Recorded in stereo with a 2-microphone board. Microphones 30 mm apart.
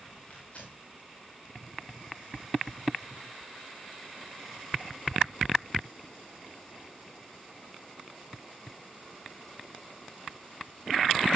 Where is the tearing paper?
50° left (ahead or behind), 4.5 m.